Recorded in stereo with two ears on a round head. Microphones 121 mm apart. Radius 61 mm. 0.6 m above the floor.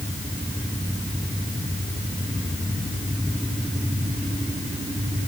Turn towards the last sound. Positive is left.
No sound to turn to.